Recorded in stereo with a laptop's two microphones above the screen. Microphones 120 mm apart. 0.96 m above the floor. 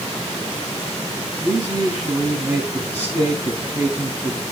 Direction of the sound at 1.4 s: 15° right (ahead or behind).